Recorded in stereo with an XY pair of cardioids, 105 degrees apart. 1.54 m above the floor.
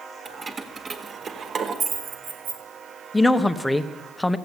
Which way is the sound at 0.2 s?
35° right.